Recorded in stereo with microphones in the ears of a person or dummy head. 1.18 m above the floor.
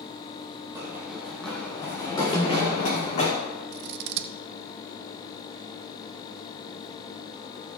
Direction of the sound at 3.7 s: 60° right (ahead or behind).